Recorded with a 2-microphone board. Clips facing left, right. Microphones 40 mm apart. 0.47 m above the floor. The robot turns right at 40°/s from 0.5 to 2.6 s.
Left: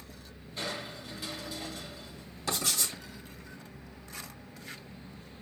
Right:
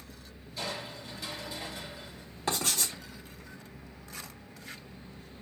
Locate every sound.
0.6 s crushing: 145° left, 3.5 m; by 2.3 s 145° right, 3.5 m
2.5 s writing: 35° right (ahead or behind), 3.5 m; by 2.9 s 40° right (ahead or behind), 3.5 m